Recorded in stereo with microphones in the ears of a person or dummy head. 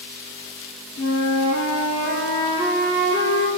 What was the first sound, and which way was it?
A flute, 60° left (ahead or behind).